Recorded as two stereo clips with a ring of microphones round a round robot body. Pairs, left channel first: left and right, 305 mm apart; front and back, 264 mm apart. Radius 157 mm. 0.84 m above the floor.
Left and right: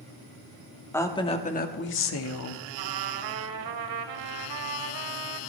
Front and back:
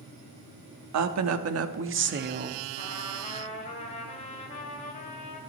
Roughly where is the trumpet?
Right.